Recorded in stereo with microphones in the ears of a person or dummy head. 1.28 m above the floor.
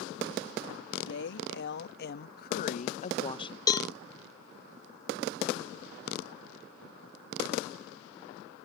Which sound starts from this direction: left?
A woman speaking, at 1.1 s.